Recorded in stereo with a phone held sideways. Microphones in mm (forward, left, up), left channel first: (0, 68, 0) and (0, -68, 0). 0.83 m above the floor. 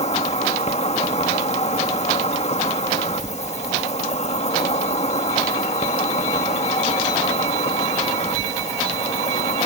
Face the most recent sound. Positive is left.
turn(degrees=55)  # may be behind; listen again after turning